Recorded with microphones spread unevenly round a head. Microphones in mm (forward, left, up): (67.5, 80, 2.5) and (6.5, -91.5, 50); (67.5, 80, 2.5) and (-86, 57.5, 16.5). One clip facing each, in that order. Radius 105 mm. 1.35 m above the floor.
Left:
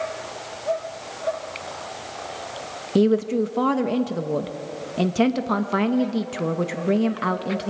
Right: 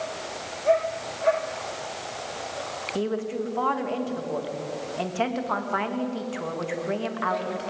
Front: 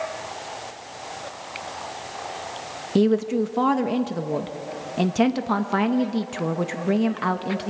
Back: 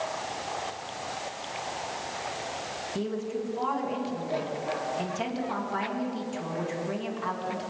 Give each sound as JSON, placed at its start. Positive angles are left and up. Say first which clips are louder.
{"t": 3.0, "sound": "a woman speaking", "louder": "left 9 dB, front 13 dB", "azimuth_deg": 25, "distance_m": 1.4}